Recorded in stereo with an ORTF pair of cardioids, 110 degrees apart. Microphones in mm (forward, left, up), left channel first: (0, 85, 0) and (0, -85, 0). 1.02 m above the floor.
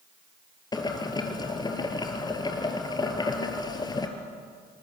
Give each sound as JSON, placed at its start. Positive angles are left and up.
{"t": 0.7, "sound": "boiling", "azimuth_deg": 25, "distance_m": 3.5}